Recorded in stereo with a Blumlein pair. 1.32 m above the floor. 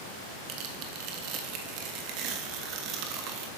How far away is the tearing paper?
About 1.4 m.